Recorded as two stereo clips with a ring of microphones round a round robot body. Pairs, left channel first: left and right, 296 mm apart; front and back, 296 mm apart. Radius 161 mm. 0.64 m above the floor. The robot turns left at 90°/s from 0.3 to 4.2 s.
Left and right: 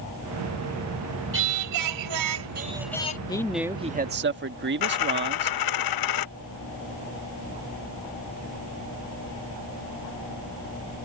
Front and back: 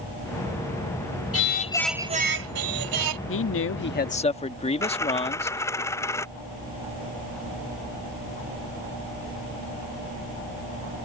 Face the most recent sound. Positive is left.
turn(degrees=80)